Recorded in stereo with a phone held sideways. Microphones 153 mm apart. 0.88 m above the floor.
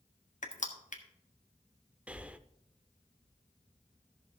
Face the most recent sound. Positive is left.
turn(degrees=-10)  # may be behind; listen again after turning